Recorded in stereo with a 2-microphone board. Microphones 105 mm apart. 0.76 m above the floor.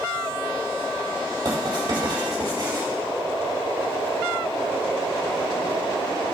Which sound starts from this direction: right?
Writing, at 1.4 s.